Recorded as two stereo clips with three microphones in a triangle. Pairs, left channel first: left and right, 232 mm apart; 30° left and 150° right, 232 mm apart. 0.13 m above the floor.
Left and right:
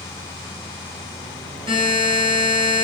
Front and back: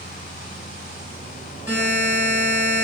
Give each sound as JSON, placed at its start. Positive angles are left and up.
{"t": 1.7, "sound": "a buzzer", "azimuth_deg": -80, "distance_m": 1.3}